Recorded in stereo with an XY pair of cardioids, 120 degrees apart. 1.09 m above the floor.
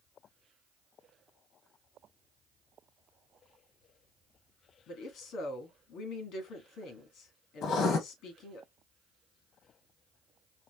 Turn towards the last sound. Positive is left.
turn(degrees=65)